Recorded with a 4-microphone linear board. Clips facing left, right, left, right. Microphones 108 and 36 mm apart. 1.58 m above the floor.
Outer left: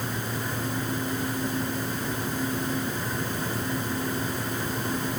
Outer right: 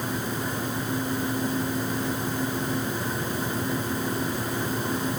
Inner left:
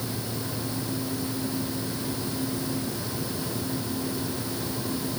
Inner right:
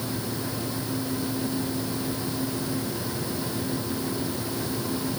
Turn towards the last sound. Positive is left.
No sound to turn to.